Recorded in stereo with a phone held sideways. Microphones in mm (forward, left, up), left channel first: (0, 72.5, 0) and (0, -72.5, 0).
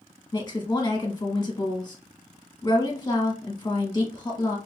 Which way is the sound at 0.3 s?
30° left (ahead or behind).